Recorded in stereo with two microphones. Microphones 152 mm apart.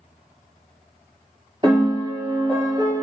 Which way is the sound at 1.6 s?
35° right (ahead or behind).